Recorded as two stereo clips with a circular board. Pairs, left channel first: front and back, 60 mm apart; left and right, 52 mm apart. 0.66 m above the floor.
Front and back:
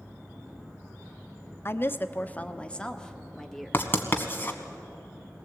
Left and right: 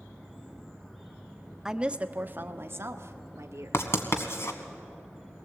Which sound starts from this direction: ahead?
A woman speaking, at 1.6 s.